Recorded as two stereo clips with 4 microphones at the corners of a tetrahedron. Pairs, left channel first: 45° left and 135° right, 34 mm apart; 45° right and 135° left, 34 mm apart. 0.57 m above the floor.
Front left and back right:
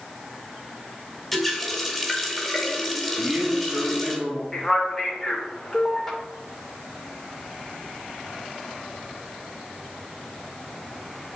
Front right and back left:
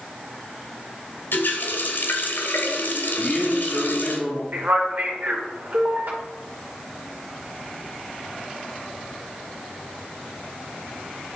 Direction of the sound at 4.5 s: 120° left.